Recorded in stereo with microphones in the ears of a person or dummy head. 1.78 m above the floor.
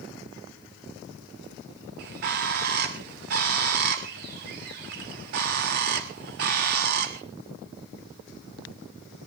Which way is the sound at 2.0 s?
50° right (ahead or behind).